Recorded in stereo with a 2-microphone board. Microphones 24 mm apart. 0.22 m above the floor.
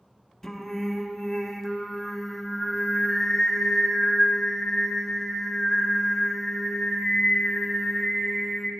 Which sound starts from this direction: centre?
Singing, at 0.4 s.